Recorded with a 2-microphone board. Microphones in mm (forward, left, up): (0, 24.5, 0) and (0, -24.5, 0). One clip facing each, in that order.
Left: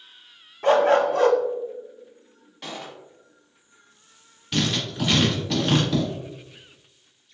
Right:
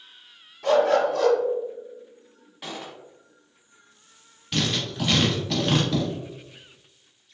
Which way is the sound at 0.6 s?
40° left (ahead or behind).